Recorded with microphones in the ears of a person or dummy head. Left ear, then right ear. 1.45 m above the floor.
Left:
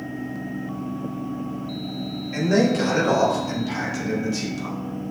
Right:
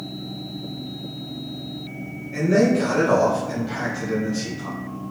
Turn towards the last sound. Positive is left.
turn(degrees=70)  # may be behind; listen again after turning